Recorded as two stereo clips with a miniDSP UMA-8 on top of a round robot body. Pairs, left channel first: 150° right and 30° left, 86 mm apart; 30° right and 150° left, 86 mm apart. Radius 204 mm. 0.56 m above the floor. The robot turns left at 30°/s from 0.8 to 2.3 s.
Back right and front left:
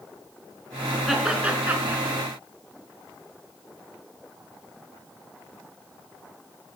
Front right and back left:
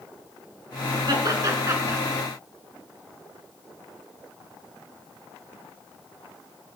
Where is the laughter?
110° left, 4 m; by 2.0 s 80° left, 4 m.